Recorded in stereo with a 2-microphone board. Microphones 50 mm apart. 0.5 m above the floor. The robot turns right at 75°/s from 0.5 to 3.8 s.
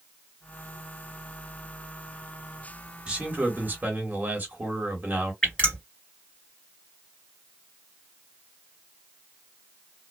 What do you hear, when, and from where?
3.1 s a man speaking: 150° right, 1.5 m; by 5.3 s 95° right, 1.5 m
5.4 s dripping: 20° left (ahead or behind), 2 m